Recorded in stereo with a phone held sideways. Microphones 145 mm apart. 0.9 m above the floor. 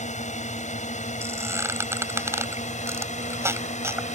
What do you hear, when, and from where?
0.0 s a drone: 55° left (ahead or behind)
1.2 s a squeak: 20° right (ahead or behind)